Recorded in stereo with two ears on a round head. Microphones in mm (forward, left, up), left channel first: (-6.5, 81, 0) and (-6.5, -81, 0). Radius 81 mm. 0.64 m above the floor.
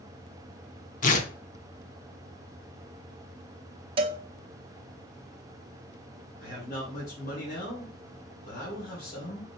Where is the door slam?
No door slam in this recording.